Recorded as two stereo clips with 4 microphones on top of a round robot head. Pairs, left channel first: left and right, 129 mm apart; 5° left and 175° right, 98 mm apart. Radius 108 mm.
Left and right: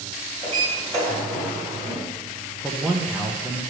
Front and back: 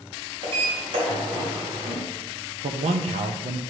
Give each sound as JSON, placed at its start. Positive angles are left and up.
{"t": 0.4, "sound": "a sliding door", "azimuth_deg": 165, "distance_m": 2.5}
{"t": 2.6, "sound": "a man speaking", "azimuth_deg": 180, "distance_m": 0.5}